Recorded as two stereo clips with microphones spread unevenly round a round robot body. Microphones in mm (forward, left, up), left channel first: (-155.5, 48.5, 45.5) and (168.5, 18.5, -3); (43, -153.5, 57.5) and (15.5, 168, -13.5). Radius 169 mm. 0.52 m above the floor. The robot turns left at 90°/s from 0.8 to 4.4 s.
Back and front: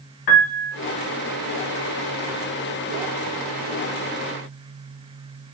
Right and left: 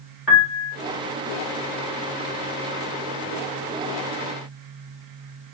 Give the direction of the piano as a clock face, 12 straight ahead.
6 o'clock.